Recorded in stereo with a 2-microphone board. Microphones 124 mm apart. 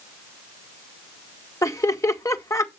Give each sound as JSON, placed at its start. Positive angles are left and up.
{"t": 1.6, "sound": "laughter", "side_deg": 25, "distance_m": 1.7}